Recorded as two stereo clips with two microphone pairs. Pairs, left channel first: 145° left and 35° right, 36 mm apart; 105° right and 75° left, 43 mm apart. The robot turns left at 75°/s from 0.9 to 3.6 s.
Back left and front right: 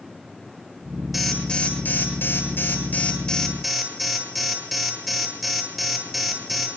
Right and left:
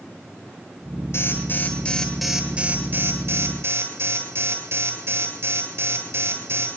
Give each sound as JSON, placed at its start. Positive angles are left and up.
{"t": 1.1, "sound": "an alarm", "azimuth_deg": -120, "distance_m": 9.0}